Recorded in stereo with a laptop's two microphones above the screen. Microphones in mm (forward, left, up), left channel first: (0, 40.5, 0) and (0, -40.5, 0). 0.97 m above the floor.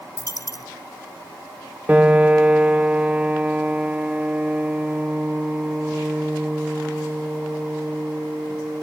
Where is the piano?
15° right (ahead or behind).